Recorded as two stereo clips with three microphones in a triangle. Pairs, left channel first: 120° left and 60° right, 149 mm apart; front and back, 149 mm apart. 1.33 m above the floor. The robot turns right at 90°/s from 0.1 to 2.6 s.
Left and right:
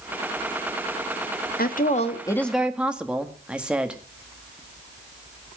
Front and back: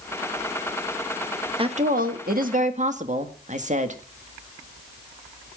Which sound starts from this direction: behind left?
A woman speaking, at 1.6 s.